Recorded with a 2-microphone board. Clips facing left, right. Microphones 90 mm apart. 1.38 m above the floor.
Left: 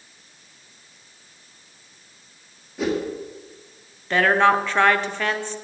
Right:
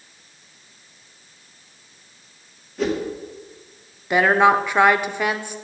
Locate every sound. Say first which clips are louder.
2.8 s a whoosh: right 1 dB; 5° left (ahead or behind), 1.7 m
4.1 s a woman speaking: right 2 dB; 15° right (ahead or behind), 0.6 m